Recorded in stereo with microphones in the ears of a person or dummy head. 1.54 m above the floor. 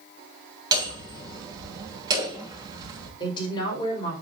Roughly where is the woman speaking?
Left.